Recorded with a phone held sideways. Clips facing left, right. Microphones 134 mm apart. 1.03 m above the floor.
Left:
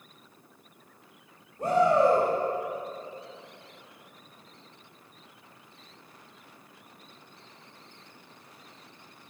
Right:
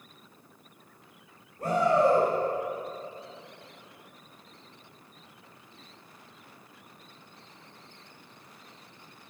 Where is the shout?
20° left (ahead or behind), 5 m.